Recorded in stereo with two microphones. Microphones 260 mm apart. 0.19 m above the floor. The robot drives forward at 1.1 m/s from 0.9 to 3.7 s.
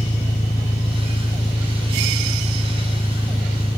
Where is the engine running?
20° left (ahead or behind); by 3.8 s 15° left (ahead or behind).